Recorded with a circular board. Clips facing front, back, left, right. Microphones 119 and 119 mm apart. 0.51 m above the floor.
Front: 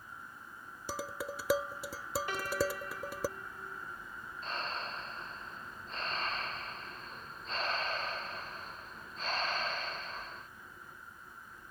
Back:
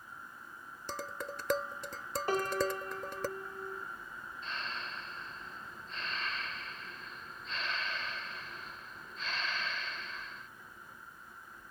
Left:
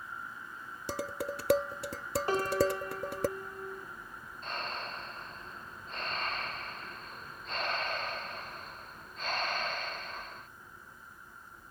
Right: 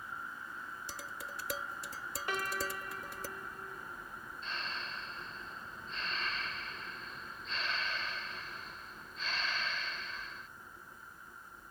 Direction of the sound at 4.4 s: 50° left.